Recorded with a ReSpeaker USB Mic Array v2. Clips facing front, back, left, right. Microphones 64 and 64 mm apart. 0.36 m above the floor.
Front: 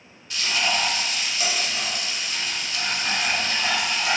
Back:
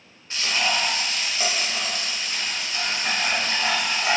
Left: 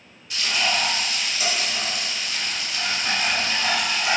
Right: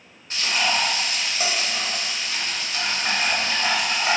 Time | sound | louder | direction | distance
0.3 | frying | even, right 1 dB | 130° right | 0.6 m